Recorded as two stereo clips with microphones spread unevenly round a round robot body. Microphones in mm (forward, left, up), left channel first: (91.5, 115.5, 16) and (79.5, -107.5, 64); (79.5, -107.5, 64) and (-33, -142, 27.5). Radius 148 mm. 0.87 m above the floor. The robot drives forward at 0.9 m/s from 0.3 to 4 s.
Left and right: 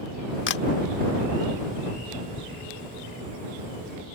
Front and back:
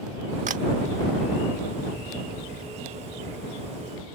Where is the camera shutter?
140° left; by 0.7 s 150° left.